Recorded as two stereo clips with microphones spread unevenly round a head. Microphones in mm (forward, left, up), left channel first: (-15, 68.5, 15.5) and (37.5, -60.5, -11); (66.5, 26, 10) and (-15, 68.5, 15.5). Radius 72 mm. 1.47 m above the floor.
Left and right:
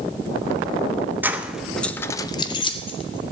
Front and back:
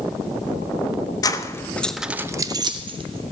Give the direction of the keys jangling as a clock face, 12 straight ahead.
12 o'clock.